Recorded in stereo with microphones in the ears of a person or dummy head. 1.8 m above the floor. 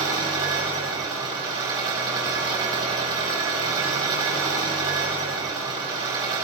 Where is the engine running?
20° right (ahead or behind), 5 m.